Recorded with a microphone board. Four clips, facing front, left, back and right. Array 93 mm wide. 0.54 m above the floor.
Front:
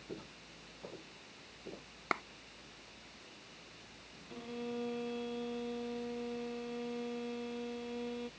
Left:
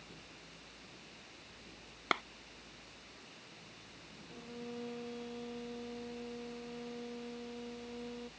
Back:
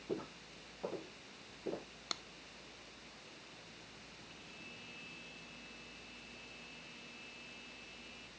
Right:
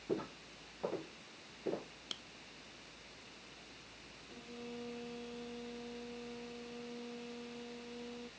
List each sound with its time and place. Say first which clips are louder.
0.1 s footsteps: right 14 dB, back 6 dB; 110° right; by 1.9 s 115° right
2.1 s a clap: left 20 dB, front 12 dB; 55° left
4.3 s a violin: left 2 dB, front 18 dB; 5° left